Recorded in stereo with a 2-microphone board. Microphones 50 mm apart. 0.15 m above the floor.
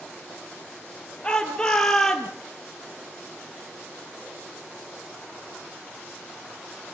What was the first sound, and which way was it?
A shout, 20° left (ahead or behind).